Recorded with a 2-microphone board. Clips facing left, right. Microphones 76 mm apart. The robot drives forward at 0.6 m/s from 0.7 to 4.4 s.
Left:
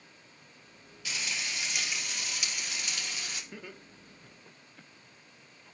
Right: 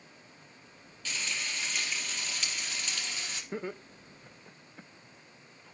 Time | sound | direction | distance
1.1 | frying | 15° left (ahead or behind) | 3 m
3.5 | laughter | 35° right (ahead or behind) | 0.8 m